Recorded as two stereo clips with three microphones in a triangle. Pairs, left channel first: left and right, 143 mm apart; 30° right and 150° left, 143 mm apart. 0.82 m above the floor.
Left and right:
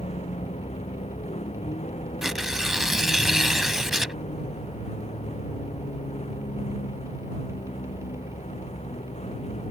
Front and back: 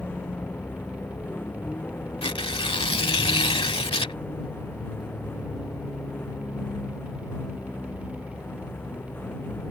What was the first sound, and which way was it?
A vehicle, 45° left.